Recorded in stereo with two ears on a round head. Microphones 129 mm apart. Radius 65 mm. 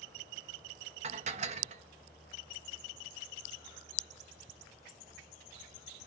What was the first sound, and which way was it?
Dishes clattering, 50° right (ahead or behind).